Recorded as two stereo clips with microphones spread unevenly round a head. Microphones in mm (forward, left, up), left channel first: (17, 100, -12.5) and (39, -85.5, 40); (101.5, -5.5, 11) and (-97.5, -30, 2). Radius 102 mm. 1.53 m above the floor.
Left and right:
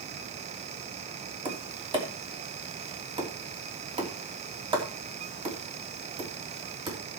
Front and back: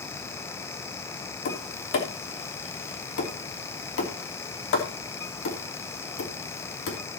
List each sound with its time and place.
1.4 s tapping: 20° right, 3 m